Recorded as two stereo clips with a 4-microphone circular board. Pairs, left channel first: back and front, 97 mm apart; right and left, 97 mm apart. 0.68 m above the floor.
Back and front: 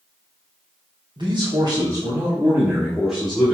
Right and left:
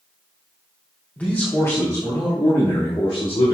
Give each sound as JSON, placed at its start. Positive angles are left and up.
{"t": 1.2, "sound": "a man speaking", "azimuth_deg": -20, "distance_m": 2.0}